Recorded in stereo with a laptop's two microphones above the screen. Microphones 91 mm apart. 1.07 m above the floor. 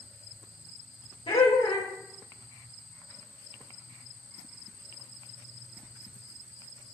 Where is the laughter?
65° left (ahead or behind), 1.0 m.